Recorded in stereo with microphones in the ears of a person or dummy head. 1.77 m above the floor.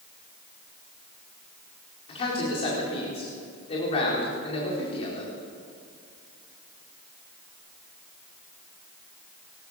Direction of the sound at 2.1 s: 35° left (ahead or behind).